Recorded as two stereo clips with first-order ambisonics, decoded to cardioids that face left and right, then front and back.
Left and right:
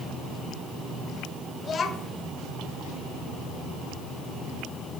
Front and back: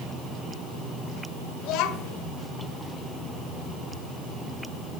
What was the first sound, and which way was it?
A child speaking, 25° left.